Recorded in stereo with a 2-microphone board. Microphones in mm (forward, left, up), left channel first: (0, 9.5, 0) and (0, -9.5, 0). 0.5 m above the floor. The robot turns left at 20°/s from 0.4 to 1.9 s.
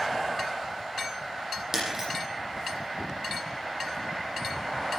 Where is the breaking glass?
25° right (ahead or behind), 8.5 m.